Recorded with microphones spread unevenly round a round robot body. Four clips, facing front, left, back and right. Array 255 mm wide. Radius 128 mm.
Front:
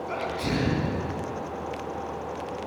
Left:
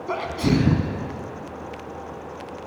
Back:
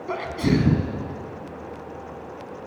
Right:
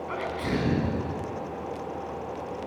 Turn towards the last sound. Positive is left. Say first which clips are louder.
# left 8 dB, back 7 dB
turn(degrees=140)